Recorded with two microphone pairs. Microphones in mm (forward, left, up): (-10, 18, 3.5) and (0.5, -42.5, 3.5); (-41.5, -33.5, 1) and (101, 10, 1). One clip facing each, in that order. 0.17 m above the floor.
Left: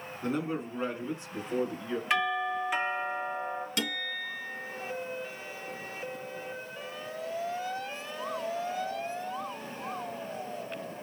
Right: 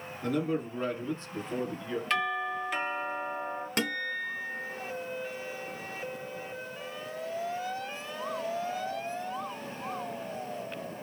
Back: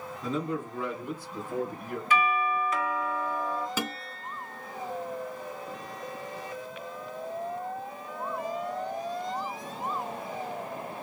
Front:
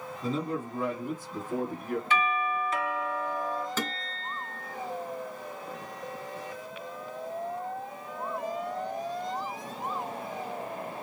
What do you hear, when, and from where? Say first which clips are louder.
0.2 s a man speaking: right 2 dB, even; 55° left, 1.4 m; by 2.0 s 15° left, 1.9 m
2.1 s a doorbell: left 2 dB, back 4 dB; 35° left, 2 m
3.8 s a guitar: right 2 dB, even; 85° right, 0.7 m